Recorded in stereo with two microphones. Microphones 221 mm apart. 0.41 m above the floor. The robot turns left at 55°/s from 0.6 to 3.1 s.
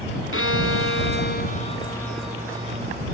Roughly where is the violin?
Left.